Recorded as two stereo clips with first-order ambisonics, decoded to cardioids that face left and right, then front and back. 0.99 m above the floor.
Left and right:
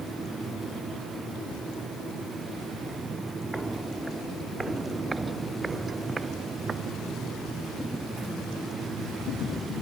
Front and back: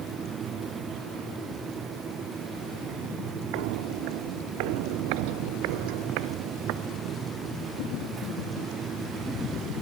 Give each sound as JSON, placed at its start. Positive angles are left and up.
{"t": 3.5, "sound": "footsteps", "azimuth_deg": -175}